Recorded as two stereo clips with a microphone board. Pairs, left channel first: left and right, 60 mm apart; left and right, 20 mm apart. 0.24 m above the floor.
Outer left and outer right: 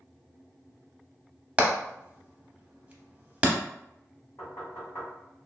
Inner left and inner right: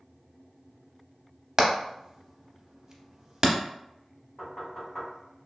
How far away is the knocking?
About 1.8 m.